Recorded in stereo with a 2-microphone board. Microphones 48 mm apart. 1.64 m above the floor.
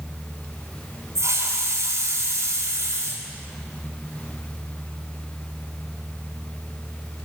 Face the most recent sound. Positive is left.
turn(degrees=-80)